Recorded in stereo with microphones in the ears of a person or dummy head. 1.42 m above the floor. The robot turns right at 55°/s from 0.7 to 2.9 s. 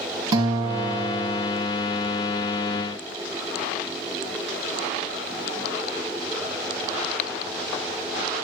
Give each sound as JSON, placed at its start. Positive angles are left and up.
{"t": 0.3, "sound": "a guitar", "azimuth_deg": -25, "distance_m": 2.0}